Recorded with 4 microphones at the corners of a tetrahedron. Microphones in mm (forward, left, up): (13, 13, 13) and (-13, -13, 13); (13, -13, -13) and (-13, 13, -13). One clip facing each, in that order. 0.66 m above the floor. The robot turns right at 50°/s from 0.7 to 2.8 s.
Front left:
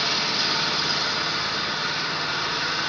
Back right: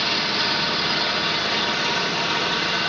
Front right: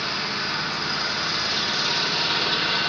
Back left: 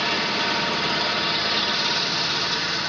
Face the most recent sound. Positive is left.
turn(degrees=-90)